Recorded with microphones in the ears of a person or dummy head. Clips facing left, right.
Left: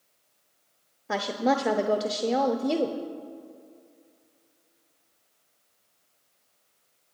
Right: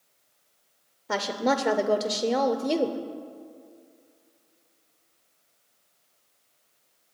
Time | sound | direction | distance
1.1 | a woman speaking | 5° left (ahead or behind) | 0.6 m